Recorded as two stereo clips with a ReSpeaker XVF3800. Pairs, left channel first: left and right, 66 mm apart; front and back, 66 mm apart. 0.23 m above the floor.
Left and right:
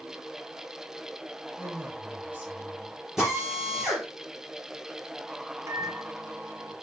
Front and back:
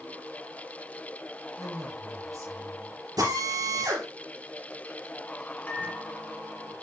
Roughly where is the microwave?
Ahead right.